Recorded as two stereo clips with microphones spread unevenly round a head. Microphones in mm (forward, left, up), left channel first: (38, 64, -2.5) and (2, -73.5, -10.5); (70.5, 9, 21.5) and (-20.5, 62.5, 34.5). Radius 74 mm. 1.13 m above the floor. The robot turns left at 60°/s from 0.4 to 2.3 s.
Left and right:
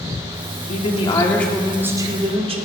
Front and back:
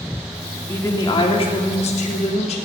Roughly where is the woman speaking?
Ahead left.